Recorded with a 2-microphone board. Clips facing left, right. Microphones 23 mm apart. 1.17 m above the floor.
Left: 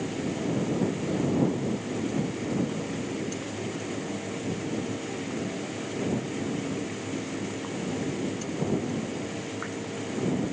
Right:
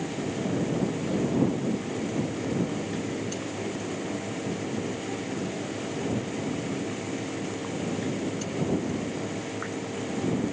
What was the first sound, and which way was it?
Only background noise.